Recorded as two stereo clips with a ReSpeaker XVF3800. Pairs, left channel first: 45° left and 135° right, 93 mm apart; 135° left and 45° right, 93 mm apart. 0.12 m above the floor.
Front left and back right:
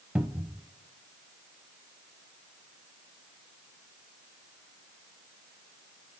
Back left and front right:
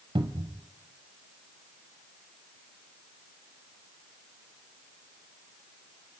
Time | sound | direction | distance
0.1 | a cupboard door | 60° right | 0.8 m